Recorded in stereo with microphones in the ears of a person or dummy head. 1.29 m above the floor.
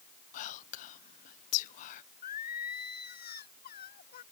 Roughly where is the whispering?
Left.